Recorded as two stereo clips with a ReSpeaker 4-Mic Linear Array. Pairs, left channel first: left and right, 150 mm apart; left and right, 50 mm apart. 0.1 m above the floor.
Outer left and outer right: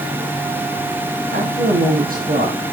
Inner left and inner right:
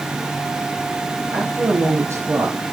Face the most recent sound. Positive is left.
turn(degrees=-65)  # may be behind; listen again after turning